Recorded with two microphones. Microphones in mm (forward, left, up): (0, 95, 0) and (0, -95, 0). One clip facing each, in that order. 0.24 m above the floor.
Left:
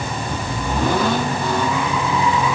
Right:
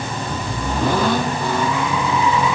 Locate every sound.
Only background noise.